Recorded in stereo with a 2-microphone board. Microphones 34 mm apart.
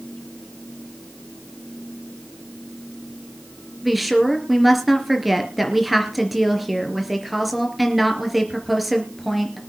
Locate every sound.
3.8 s a woman speaking: centre (ahead or behind), 3.5 m